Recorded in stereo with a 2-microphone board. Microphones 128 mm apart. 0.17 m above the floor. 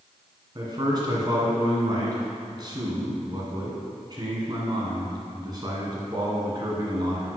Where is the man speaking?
35° right (ahead or behind), 1.7 m.